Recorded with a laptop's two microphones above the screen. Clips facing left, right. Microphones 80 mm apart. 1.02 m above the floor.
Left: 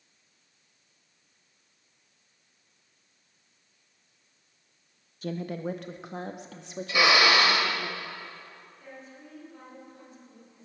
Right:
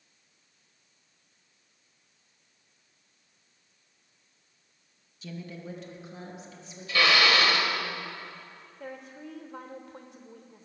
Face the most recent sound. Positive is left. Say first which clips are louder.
# right 6 dB
turn(degrees=-80)